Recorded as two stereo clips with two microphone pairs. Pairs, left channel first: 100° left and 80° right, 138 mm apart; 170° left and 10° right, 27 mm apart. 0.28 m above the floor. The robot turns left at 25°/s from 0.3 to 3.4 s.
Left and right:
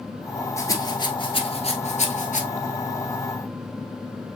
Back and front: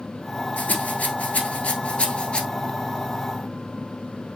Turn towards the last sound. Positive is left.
turn(degrees=95)